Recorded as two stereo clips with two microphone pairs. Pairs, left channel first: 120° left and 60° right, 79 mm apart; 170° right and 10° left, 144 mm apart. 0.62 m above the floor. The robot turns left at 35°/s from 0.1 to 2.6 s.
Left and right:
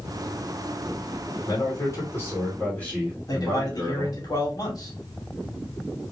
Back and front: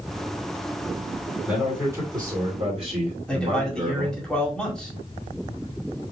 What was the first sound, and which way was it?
A man speaking, 90° left.